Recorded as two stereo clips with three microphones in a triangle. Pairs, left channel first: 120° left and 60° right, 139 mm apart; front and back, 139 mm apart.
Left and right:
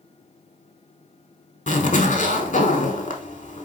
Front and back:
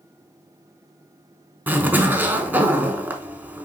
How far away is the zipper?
About 0.8 m.